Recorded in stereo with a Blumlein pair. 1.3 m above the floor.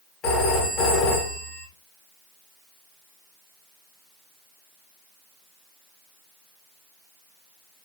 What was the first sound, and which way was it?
A phone ringing, 25° left.